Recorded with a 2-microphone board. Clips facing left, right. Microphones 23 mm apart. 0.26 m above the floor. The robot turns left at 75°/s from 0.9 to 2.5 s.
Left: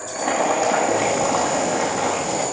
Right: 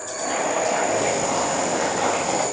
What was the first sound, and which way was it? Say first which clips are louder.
Boiling: left 4 dB; 70° left.